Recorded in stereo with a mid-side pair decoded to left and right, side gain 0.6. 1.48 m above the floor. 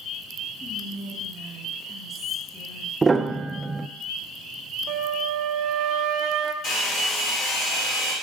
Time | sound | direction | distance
0.6 | whispering | 40° left | 2.5 m
3.0 | a piano | 20° right | 0.5 m
4.9 | a flute | 70° right | 0.6 m
6.6 | a hair dryer | 55° left | 3.5 m